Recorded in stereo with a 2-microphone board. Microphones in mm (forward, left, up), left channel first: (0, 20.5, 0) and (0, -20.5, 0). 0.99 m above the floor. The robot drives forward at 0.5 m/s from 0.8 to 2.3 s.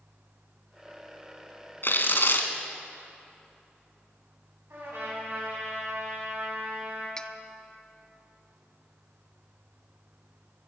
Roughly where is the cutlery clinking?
Centre.